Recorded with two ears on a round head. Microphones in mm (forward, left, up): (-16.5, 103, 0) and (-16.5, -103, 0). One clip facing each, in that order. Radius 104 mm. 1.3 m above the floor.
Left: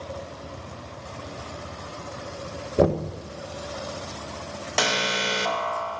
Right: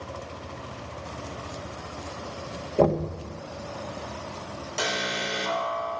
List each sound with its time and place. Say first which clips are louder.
2.8 s knocking: left 1 dB; 15° left (ahead or behind), 1.0 m
4.8 s an alarm: left 4 dB; 70° left (ahead or behind), 2.0 m